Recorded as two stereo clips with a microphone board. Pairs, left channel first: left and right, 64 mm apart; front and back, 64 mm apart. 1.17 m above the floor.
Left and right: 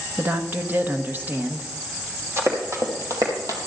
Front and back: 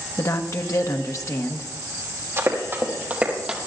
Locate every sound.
0.2 s a woman speaking: 30° right, 1.1 m
2.4 s running footsteps: 135° right, 3 m; by 3.6 s 100° right, 2.5 m